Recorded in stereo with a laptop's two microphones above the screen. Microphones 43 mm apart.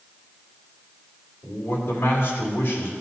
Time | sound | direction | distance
1.4 | a man speaking | 60° left (ahead or behind) | 2.5 m